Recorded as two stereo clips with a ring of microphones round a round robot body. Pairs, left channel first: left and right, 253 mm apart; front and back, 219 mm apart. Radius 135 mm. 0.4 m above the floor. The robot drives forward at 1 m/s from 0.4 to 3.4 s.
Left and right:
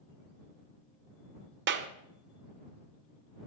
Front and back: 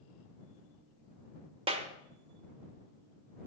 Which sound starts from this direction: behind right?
A clap, at 1.7 s.